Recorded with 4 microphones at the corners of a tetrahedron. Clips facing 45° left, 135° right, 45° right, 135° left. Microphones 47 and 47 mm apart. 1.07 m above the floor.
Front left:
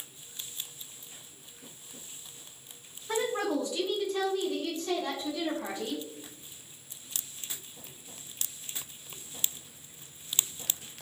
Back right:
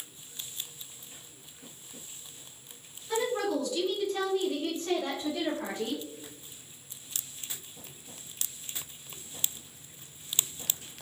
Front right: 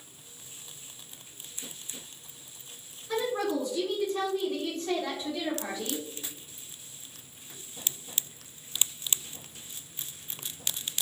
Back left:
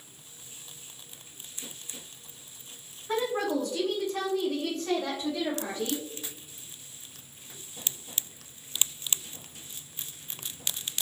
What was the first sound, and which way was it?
A woman speaking, 85° left.